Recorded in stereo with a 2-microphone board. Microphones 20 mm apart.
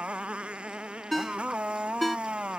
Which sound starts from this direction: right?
A motorcycle, at 0.0 s.